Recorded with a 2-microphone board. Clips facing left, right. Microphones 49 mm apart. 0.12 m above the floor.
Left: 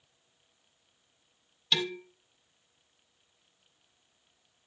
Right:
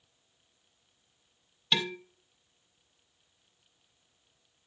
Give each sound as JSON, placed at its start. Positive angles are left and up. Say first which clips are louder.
{"t": 1.7, "sound": "dishes clattering", "louder": "even", "side_deg": -15, "distance_m": 1.6}